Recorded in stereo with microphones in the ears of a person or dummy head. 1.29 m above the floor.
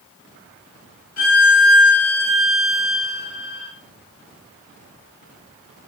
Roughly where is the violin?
Left.